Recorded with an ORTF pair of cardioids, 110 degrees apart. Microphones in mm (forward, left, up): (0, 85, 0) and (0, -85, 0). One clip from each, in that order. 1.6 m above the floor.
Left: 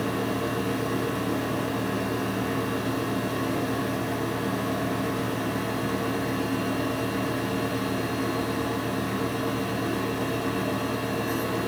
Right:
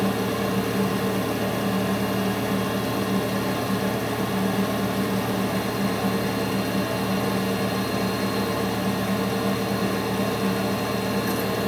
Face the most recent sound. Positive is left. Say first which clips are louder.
# right 3 dB
turn(degrees=-65)